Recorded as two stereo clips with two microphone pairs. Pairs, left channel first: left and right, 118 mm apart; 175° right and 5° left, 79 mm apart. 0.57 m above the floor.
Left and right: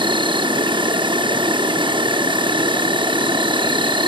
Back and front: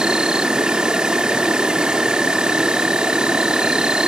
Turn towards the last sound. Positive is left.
turn(degrees=-70)